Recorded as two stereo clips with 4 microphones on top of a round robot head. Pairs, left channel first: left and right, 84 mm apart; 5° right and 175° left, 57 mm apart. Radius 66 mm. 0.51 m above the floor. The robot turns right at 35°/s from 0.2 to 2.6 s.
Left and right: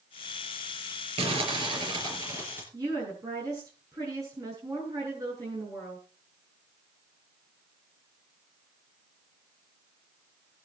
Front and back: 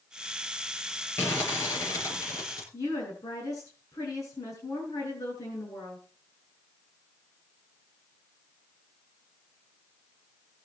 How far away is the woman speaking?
About 7.5 m.